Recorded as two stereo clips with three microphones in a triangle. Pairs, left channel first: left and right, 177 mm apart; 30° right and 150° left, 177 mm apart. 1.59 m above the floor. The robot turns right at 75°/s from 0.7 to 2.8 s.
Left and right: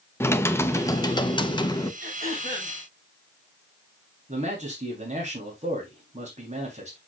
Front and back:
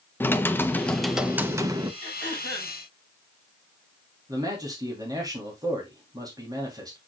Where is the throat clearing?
115° left, 7 m; by 2.7 s 170° left, 7 m.